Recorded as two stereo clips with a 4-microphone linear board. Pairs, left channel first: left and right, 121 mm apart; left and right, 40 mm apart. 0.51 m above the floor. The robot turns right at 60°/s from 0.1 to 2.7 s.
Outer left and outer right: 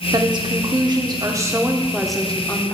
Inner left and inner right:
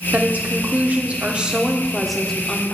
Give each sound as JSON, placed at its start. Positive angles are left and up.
{"t": 0.1, "sound": "a woman speaking", "azimuth_deg": -120, "distance_m": 0.8}